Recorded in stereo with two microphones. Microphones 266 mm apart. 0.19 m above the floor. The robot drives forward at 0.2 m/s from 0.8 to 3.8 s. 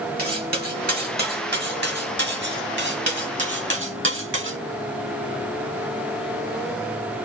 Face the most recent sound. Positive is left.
turn(degrees=-50)  # may be behind; listen again after turning